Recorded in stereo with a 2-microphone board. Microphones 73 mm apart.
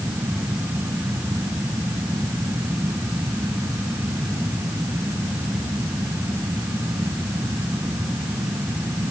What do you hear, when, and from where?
Only background noise.